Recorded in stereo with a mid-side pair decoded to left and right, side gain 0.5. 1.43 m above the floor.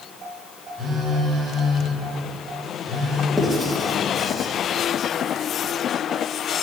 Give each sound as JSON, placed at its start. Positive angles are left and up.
{"t": 0.8, "sound": "a phone buzzing", "azimuth_deg": -45, "distance_m": 2.5}
{"t": 3.4, "sound": "writing", "azimuth_deg": 5, "distance_m": 1.8}